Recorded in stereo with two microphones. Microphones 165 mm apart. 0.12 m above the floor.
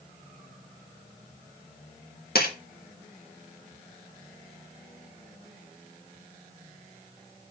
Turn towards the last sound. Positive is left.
turn(degrees=70)  # may be behind; listen again after turning